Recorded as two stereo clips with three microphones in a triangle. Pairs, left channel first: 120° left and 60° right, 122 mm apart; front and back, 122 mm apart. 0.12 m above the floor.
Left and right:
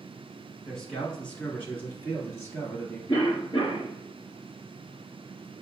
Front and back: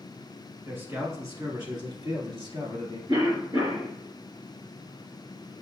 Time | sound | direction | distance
0.7 | a man speaking | 160° right | 1.4 m
3.1 | a cough | 150° left | 2.0 m